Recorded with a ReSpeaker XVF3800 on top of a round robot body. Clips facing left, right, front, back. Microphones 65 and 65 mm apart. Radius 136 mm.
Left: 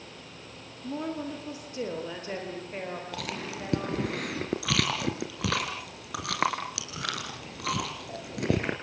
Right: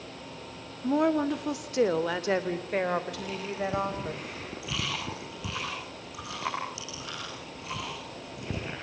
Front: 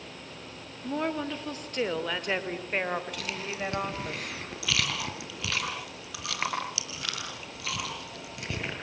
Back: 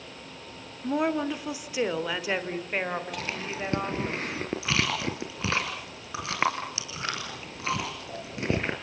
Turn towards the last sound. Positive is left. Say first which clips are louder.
# right 2 dB, back 2 dB
turn(degrees=120)